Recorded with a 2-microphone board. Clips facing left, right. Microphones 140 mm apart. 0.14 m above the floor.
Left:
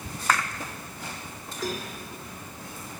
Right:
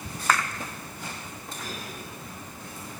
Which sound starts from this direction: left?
A cowbell, at 1.6 s.